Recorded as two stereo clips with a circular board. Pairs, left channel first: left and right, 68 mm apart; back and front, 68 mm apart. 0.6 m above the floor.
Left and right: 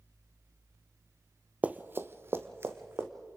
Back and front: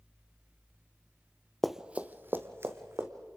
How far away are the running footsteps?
About 0.6 m.